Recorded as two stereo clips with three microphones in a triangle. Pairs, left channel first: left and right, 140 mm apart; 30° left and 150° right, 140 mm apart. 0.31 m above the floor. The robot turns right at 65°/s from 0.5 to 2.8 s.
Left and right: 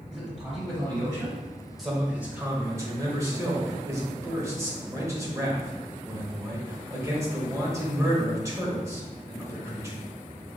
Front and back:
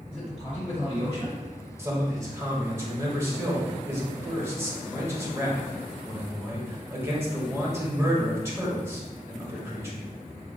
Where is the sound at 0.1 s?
5° right, 1.8 m; by 1.4 s 50° left, 1.8 m.